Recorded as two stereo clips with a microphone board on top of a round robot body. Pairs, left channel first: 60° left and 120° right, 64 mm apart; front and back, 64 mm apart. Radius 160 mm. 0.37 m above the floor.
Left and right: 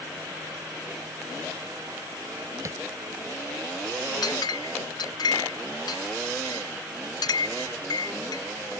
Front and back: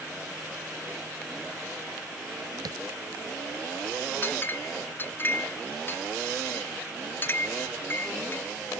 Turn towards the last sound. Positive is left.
turn(degrees=60)